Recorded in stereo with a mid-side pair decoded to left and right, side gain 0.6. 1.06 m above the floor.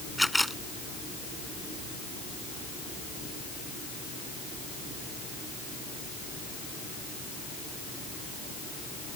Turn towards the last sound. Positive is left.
turn(degrees=0)